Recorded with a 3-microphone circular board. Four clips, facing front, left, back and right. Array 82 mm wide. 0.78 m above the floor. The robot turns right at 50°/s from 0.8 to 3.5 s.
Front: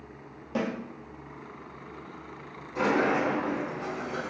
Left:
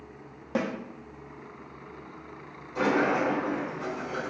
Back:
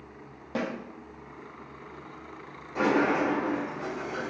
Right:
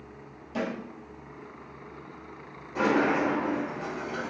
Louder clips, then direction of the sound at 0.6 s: Left 2 dB, front 1 dB; 105° left.